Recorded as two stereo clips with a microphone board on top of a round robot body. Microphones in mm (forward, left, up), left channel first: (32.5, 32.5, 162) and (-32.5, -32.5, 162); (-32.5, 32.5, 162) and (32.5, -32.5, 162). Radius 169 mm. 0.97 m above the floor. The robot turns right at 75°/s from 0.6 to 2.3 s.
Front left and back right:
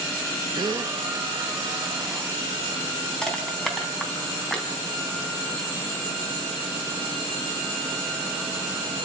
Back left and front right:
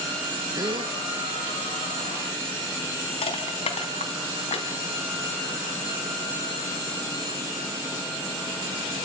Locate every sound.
0.6 s a gasp: 95° right, 1.1 m; by 0.9 s 70° right, 1.1 m
3.2 s crushing: 130° left, 3.5 m